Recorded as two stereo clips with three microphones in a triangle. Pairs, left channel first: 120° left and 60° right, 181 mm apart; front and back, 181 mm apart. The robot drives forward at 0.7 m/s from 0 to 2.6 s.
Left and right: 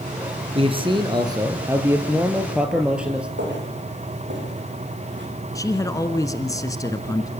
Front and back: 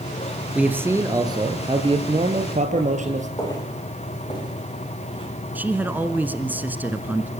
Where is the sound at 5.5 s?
120° left, 1.1 m.